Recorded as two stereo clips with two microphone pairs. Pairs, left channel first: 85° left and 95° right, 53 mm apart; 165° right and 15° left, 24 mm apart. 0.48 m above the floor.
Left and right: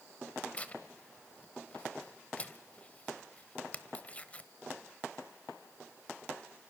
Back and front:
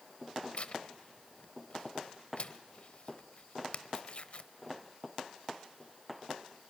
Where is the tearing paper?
155° left, 1.1 m.